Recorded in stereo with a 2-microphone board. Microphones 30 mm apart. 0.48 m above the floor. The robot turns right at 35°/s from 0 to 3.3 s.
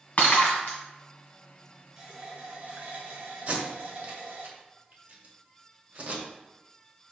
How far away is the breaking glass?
About 1.6 m.